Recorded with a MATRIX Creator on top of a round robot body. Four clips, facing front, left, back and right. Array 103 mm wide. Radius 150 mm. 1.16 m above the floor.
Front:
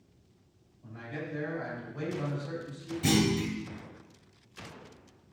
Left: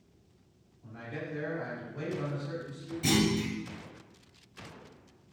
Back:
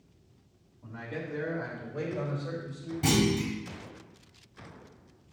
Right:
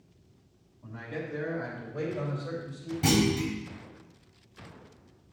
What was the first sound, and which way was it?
A man speaking, 160° right.